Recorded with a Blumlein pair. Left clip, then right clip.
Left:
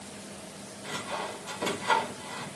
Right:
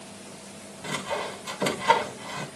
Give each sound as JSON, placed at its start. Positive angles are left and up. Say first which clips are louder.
{"t": 0.8, "sound": "sawing", "louder": "right 4 dB", "azimuth_deg": -25, "distance_m": 1.9}